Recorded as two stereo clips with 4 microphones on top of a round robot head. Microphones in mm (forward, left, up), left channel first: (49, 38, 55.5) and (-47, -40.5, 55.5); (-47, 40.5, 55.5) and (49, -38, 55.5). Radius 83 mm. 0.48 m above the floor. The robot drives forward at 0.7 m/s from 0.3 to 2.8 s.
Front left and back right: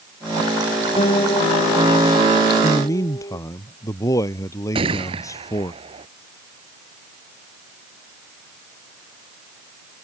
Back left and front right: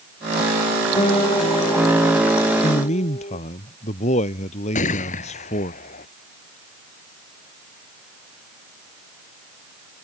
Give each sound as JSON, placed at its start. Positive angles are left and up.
{"t": 1.0, "sound": "a guitar", "azimuth_deg": 90}
{"t": 2.6, "sound": "a man speaking", "azimuth_deg": 105}
{"t": 4.8, "sound": "a gunshot", "azimuth_deg": 170}